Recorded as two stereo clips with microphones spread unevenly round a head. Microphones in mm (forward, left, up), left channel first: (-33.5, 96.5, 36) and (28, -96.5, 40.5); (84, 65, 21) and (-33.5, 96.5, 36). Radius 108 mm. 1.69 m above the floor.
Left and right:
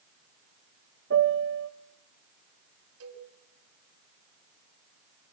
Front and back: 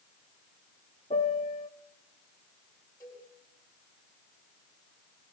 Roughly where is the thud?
No thud in this recording.